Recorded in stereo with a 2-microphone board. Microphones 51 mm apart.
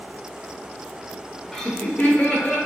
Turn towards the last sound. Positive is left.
turn(degrees=35)  # may be behind; listen again after turning